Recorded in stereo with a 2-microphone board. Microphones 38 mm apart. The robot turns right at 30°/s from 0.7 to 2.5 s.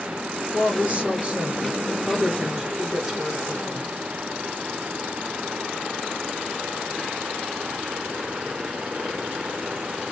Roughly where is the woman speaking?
Right.